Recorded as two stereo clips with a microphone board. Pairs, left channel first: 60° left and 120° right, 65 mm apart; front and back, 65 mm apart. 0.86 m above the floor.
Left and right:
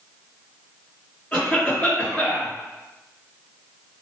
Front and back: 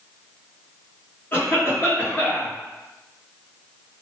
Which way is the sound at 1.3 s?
25° left.